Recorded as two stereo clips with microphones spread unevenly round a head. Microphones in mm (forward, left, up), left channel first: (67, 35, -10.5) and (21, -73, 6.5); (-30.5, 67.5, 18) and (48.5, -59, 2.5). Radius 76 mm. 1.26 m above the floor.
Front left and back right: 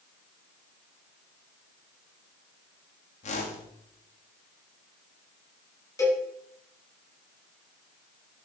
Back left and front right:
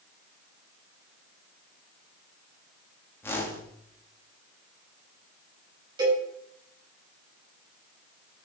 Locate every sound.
3.2 s a whoosh: 45° left, 2 m
6.0 s a cowbell: 5° left, 6 m